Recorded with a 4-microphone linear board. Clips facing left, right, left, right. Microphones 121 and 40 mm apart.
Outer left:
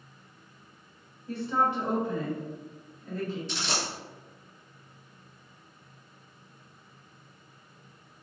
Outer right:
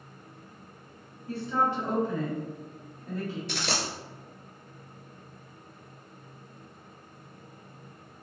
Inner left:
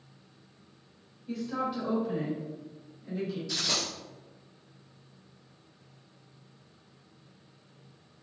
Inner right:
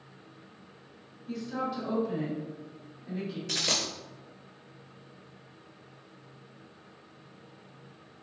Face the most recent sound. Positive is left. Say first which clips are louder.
# outer right 1 dB, inner right 4 dB
turn(degrees=-65)  # may be behind; listen again after turning